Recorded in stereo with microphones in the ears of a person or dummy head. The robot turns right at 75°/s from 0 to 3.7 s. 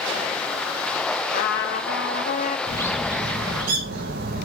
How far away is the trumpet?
About 0.9 m.